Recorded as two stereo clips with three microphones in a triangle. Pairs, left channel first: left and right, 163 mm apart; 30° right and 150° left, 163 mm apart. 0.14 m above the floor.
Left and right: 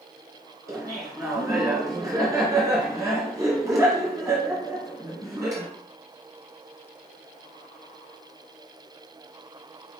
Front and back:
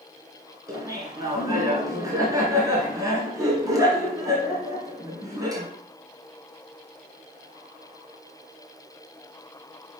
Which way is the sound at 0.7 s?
150° right.